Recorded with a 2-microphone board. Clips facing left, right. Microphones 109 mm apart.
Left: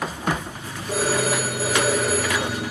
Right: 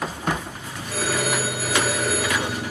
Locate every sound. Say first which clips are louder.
0.9 s a phone ringing: left 3 dB; 35° left (ahead or behind), 5 m